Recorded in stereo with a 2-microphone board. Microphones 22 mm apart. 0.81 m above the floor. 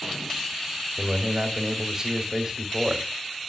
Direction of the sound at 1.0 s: 30° right (ahead or behind).